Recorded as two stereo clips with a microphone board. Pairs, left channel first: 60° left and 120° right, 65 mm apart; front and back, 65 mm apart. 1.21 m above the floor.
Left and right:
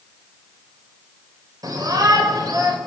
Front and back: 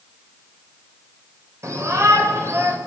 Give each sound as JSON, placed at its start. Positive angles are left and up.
{"t": 1.6, "sound": "a shout", "azimuth_deg": -140, "distance_m": 5.5}